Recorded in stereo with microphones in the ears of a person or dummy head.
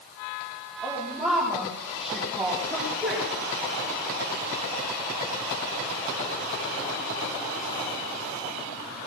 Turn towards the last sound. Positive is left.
turn(degrees=-5)  # may be behind; listen again after turning